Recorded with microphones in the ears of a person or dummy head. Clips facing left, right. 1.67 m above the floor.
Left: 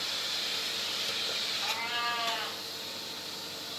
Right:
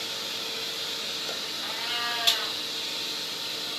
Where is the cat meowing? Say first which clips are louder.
Left 1 dB; 10° right (ahead or behind), 1.6 m.